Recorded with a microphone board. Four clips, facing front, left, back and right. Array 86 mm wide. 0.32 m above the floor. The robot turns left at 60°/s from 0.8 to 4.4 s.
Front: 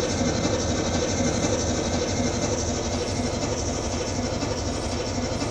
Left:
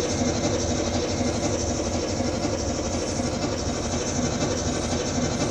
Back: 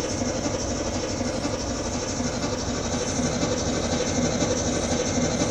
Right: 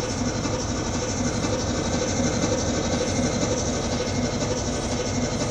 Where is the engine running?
35° left, 9.5 m; by 5.5 s 175° left, 9.5 m.